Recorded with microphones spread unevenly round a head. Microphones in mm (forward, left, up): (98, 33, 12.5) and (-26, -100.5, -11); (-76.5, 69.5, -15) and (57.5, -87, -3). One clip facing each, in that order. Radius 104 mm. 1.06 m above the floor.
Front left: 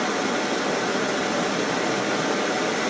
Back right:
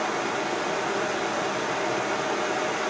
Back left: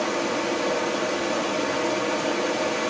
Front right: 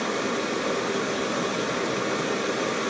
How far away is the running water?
About 2 m.